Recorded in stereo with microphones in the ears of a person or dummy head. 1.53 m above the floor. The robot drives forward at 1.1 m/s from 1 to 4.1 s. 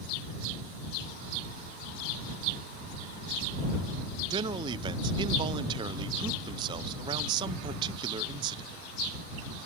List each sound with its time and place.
4.3 s a man speaking: 30° right (ahead or behind), 0.7 m